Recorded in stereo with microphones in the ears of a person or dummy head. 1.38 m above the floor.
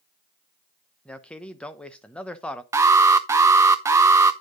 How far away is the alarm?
About 0.6 m.